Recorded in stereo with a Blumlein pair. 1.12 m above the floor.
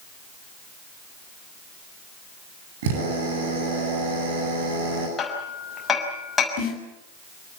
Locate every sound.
2.8 s a drill: 50° right, 9.5 m
5.2 s hammering: 20° left, 6 m
6.6 s a snare drum: 45° left, 6 m